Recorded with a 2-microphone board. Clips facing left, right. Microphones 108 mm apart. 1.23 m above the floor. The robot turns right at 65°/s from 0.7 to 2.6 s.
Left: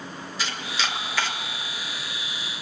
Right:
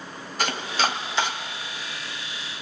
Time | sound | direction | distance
0.4 | chopping | 50° right (ahead or behind) | 1.5 m